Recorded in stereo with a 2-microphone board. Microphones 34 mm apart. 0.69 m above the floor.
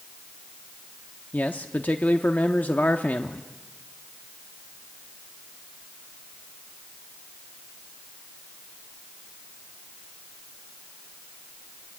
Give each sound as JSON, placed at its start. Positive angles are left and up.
{"t": 1.3, "sound": "a man speaking", "side_deg": 55, "distance_m": 1.2}